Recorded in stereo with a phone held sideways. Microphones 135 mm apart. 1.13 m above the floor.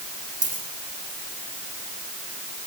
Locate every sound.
0.4 s a dropped coin: 80° right, 5 m